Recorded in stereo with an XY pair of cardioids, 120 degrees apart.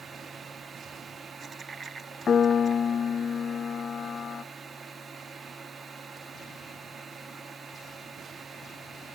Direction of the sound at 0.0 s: 35° right.